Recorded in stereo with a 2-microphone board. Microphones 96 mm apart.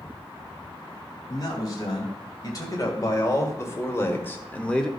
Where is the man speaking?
40° left (ahead or behind), 3.5 m; by 4.9 s 5° left (ahead or behind), 1.2 m.